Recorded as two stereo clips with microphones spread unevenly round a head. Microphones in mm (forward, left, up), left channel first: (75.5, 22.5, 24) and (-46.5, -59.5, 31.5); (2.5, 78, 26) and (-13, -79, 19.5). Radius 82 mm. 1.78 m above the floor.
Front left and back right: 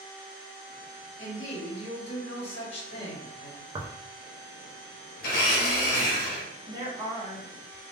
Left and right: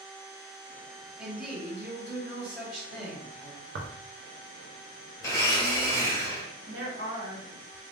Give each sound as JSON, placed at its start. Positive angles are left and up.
{"t": 1.2, "sound": "a woman speaking", "azimuth_deg": -10, "distance_m": 1.2}
{"t": 3.8, "sound": "tearing paper", "azimuth_deg": -85, "distance_m": 0.5}
{"t": 5.2, "sound": "a blender", "azimuth_deg": 15, "distance_m": 0.8}
{"t": 6.7, "sound": "a woman speaking", "azimuth_deg": -90, "distance_m": 1.2}